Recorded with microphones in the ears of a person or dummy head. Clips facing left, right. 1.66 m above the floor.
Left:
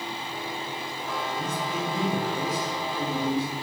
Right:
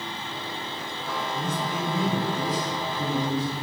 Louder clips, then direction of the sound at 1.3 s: Right 2 dB; 50° left (ahead or behind).